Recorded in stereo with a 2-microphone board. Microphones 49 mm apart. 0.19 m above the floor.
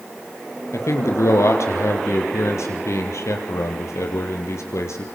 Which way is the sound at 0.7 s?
75° left (ahead or behind).